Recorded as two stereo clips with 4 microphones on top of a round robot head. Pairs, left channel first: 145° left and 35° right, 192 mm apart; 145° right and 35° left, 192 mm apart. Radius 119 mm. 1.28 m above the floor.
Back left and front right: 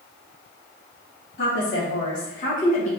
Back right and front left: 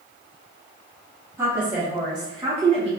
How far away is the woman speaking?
About 1.8 m.